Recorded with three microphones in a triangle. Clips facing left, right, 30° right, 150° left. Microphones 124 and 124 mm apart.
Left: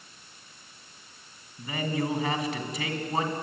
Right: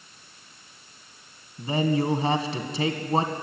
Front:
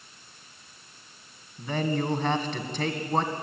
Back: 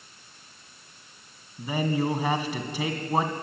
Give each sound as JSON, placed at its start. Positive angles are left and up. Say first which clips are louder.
{"t": 1.6, "sound": "a man speaking", "louder": "right 6 dB, back 1 dB", "azimuth_deg": -135, "distance_m": 1.9}